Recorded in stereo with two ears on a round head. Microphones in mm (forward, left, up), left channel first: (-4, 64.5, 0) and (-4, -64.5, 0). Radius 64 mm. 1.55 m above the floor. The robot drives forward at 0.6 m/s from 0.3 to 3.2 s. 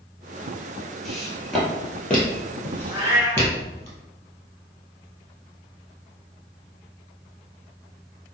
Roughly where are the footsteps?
Centre.